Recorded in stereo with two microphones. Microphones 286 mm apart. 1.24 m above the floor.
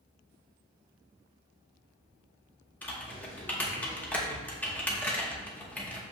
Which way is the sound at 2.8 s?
5° left (ahead or behind).